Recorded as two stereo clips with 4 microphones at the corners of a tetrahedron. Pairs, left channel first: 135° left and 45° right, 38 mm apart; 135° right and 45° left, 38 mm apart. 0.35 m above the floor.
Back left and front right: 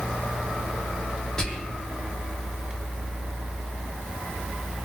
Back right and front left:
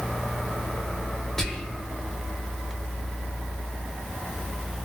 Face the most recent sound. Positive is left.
turn(degrees=145)